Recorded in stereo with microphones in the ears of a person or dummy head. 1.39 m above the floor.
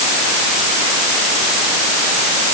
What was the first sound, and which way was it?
Only background noise.